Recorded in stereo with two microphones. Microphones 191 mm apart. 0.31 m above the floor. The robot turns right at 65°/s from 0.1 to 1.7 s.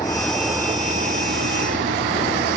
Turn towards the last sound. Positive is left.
turn(degrees=-95)